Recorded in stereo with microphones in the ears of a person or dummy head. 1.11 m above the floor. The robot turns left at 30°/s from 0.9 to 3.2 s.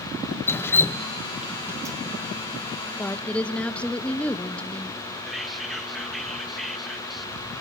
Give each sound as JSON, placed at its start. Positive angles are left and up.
{"t": 0.5, "sound": "dripping", "side_deg": 15, "distance_m": 0.7}
{"t": 3.0, "sound": "a woman speaking", "side_deg": 15, "distance_m": 0.8}
{"t": 5.3, "sound": "whispering", "side_deg": 5, "distance_m": 1.1}